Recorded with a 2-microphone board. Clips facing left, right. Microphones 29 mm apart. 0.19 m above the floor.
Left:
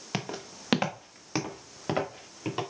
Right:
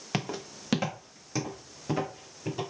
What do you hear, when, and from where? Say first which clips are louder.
0.1 s footsteps: right 2 dB; 5° right (ahead or behind), 0.8 m; by 2.6 s 50° left (ahead or behind), 3 m